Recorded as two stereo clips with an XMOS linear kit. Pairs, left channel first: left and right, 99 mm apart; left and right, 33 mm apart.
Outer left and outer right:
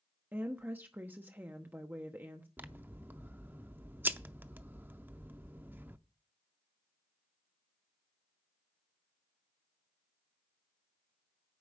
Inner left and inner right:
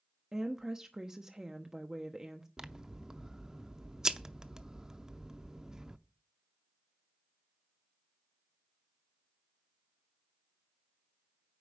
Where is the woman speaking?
20° right (ahead or behind), 0.9 m.